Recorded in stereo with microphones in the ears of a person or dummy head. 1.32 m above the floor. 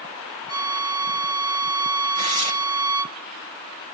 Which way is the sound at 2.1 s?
35° right (ahead or behind).